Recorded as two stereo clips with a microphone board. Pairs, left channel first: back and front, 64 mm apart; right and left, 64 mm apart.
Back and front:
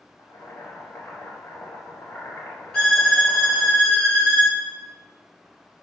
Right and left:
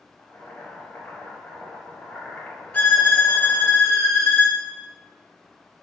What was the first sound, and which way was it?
Boiling, 150° right.